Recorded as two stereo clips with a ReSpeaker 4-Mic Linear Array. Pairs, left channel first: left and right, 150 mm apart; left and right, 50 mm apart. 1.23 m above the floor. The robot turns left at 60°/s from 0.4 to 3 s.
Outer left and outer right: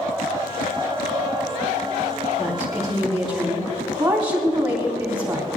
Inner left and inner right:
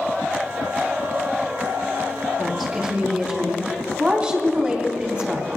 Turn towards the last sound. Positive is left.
turn(degrees=-25)